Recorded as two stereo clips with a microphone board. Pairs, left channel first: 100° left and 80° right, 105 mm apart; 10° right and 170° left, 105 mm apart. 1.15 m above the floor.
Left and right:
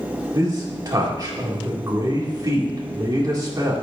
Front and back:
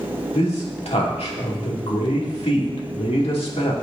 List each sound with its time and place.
0.3 s a man speaking: 25° right, 2.5 m